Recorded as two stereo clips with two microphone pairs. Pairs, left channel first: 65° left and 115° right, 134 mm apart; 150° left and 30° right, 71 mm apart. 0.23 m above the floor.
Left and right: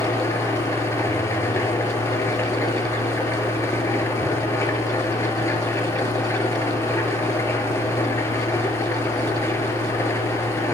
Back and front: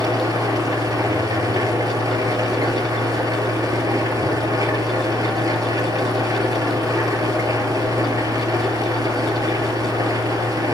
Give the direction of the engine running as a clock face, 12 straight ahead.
12 o'clock.